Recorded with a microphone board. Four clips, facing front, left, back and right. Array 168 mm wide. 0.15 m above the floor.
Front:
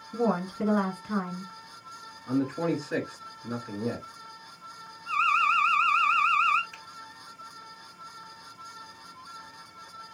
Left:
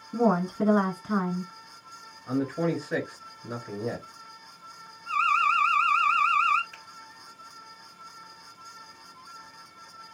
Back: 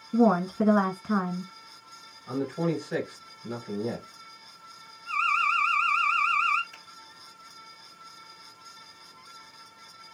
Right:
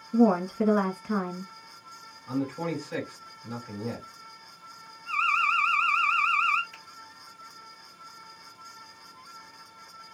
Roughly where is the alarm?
Ahead left.